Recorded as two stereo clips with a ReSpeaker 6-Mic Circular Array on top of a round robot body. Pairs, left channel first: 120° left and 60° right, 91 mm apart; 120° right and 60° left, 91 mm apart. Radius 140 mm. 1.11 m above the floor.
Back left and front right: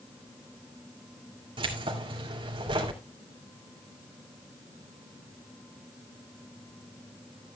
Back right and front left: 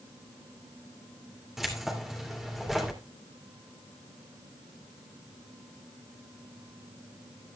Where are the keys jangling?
25° right, 2.5 m.